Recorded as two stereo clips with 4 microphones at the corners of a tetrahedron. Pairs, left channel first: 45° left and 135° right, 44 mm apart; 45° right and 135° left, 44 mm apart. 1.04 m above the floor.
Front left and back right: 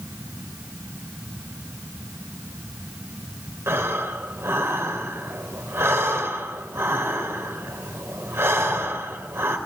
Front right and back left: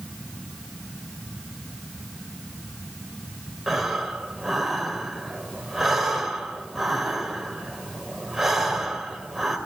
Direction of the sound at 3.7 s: 140° right.